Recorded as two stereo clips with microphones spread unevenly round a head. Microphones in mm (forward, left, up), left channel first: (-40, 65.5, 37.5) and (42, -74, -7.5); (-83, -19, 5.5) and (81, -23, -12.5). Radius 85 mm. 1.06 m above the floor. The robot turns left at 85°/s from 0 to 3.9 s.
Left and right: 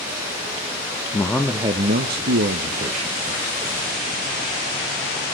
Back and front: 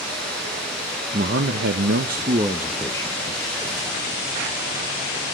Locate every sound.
1.1 s a man speaking: 50° left, 0.7 m; by 3.2 s 125° right, 0.7 m